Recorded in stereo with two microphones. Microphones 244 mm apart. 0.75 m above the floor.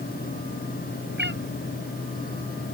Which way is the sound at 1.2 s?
45° right (ahead or behind).